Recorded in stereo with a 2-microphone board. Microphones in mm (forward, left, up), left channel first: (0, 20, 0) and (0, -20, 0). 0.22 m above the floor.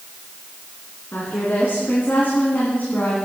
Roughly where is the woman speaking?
Left.